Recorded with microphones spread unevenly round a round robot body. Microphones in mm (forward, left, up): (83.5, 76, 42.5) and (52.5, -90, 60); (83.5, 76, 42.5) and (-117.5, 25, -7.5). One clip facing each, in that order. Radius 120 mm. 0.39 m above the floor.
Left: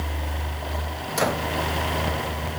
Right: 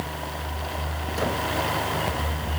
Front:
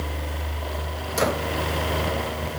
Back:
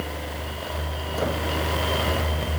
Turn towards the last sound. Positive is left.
No sound to turn to.